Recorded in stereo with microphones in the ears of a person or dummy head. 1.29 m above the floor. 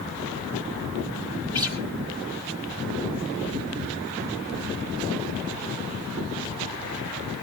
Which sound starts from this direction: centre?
A guitar, at 1.5 s.